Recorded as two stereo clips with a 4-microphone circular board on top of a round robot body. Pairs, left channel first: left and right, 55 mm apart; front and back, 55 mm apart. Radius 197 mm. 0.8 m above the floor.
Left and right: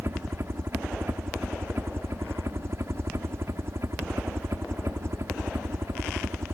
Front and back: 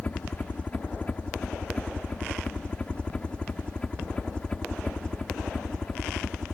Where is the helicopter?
55° right; by 6.5 s 70° right.